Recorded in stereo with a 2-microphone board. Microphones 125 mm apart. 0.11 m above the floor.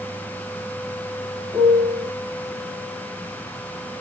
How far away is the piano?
About 0.8 m.